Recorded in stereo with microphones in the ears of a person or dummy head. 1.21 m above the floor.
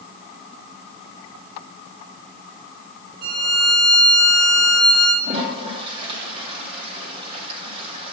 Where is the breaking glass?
I don't hear breaking glass.